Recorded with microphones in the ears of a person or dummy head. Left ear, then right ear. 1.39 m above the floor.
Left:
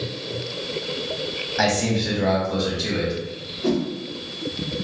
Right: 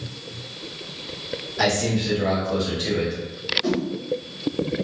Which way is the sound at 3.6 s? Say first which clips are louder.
Left 2 dB; 35° right (ahead or behind).